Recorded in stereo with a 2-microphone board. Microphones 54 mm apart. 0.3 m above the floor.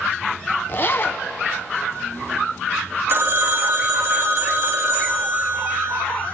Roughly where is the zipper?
Left.